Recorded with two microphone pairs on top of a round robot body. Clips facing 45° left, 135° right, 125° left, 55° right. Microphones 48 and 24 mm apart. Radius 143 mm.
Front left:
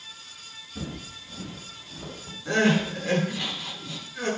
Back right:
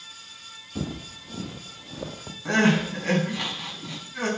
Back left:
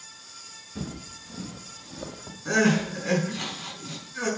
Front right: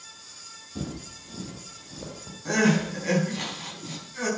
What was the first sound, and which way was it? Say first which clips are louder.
Footsteps: back right 4 dB, front right 1 dB; 130° right.